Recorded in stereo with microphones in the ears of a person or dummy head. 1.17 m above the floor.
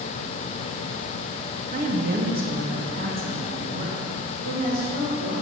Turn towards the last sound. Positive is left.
turn(degrees=-45)  # may be behind; listen again after turning